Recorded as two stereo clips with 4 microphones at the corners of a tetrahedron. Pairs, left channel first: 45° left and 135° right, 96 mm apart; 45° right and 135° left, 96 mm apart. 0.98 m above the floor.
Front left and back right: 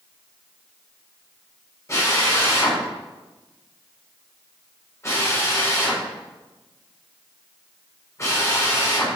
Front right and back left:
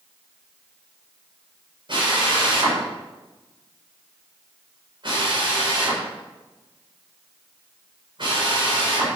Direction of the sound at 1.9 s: 105° left.